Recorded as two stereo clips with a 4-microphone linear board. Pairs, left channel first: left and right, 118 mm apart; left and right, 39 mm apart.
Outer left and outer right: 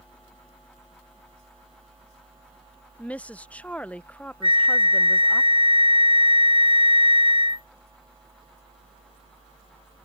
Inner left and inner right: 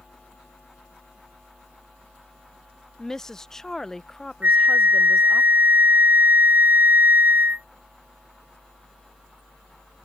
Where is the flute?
45° right (ahead or behind).